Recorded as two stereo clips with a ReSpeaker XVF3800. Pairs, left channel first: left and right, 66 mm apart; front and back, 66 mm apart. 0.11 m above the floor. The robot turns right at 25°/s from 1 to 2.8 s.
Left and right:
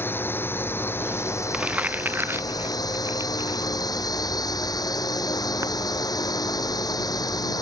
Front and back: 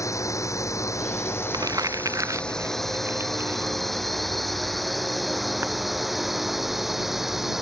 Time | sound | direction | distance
0.0 | a drone | 35° left | ?
1.5 | crumpling | 165° right | ?